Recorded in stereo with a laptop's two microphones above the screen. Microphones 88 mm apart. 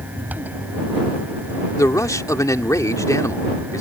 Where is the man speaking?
40° left (ahead or behind).